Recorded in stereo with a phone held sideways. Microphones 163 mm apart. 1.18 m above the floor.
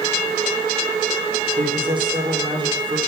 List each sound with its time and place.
1.6 s a man speaking: 30° right (ahead or behind), 4.5 m